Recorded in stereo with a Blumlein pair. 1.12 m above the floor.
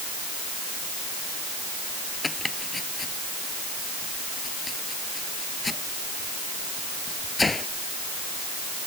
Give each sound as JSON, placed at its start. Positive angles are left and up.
{"t": 2.2, "sound": "chopping", "azimuth_deg": 10}